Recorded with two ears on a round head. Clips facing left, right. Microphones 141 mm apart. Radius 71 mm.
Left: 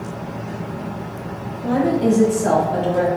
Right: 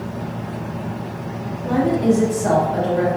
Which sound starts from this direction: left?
A woman speaking, at 1.6 s.